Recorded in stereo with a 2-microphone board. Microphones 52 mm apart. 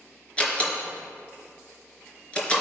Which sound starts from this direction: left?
A door slam, at 0.4 s.